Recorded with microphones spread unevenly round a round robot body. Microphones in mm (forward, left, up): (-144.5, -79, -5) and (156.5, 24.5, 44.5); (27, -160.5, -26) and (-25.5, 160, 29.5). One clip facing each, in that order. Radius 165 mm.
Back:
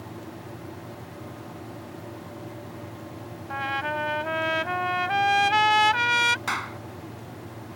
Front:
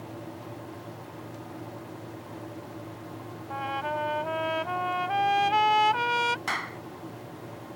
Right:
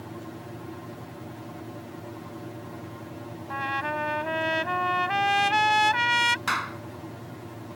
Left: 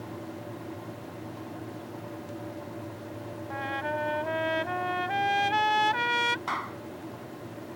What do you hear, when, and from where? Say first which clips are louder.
3.5 s a trumpet: back 1 dB, even; 130° right
6.5 s a clap: back 2 dB, right 1 dB; 95° right